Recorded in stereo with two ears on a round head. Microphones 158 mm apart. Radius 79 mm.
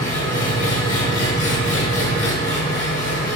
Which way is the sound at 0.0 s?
50° left (ahead or behind).